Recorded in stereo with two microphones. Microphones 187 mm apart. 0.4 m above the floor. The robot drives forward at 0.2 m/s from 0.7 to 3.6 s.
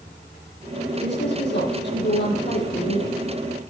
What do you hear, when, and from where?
1.0 s a woman speaking: 75° left (ahead or behind), 5 m; by 3.2 s 70° left (ahead or behind), 5.5 m